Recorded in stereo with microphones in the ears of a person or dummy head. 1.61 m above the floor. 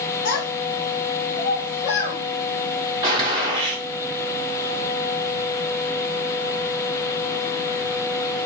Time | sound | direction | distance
0.2 | a child speaking | 55° left (ahead or behind) | 0.8 m
3.0 | a gunshot | 20° right (ahead or behind) | 1.2 m